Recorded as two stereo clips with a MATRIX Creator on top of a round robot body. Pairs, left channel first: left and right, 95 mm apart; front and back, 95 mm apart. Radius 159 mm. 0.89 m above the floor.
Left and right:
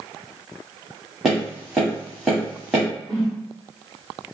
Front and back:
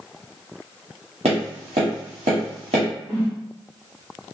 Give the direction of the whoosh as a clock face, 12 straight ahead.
5 o'clock.